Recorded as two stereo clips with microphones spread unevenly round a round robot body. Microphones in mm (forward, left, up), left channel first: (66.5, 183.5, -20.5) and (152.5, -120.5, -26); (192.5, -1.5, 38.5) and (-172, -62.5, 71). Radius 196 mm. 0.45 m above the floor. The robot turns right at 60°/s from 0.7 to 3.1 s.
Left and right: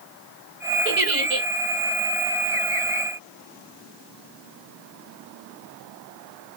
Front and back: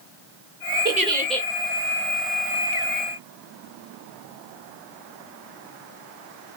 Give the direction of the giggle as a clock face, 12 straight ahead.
3 o'clock.